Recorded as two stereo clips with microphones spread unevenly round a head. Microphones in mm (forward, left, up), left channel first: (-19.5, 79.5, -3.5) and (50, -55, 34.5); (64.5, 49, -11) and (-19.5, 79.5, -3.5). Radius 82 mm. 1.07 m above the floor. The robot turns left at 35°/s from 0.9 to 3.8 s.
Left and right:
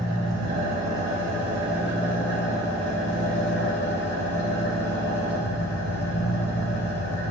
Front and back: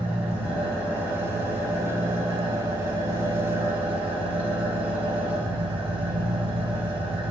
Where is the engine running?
115° right, 3.5 m; by 7.3 s 145° left, 3.5 m.